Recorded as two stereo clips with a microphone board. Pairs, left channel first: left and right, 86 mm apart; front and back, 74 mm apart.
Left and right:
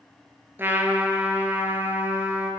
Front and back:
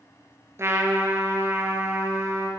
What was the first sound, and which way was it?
A trumpet, 145° right.